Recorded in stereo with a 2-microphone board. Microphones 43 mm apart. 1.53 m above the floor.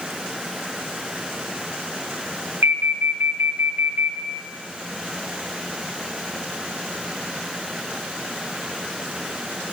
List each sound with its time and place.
2.6 s an alarm: 75° right (ahead or behind), 1.8 m